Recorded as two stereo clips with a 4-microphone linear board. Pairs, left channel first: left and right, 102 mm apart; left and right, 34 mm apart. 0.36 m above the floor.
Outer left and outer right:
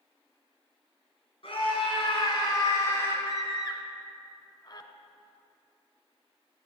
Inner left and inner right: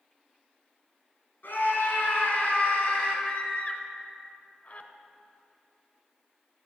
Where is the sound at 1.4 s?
60° left (ahead or behind), 4 m; by 3.1 s 20° left (ahead or behind), 3.5 m.